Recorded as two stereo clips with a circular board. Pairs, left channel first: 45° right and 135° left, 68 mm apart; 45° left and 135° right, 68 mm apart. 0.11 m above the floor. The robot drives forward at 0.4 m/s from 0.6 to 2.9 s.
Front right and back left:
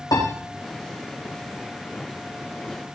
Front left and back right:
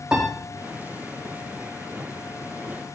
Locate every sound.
0.1 s a piano: 60° right, 4 m